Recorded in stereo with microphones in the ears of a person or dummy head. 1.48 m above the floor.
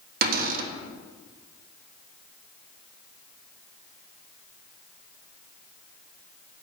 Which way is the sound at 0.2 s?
55° right (ahead or behind).